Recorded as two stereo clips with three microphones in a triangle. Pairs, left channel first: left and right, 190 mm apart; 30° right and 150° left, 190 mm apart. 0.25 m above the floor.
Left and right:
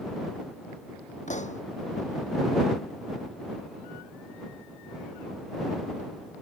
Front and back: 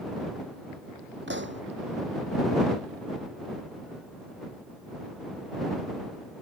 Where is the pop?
140° left.